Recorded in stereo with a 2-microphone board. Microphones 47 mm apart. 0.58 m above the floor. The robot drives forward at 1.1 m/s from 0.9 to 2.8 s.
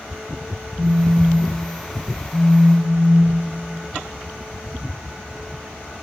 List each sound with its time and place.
0.8 s a phone buzzing: 15° right (ahead or behind), 1.3 m; by 3.5 s 5° right (ahead or behind), 3.5 m